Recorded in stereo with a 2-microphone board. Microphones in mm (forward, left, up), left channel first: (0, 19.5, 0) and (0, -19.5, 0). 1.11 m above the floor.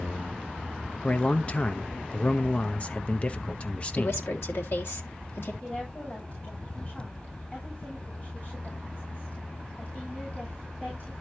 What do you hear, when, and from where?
1.0 s a man speaking: 35° left (ahead or behind), 0.7 m
4.0 s a woman speaking: 80° left, 2 m
5.6 s a woman speaking: 40° left (ahead or behind), 6.5 m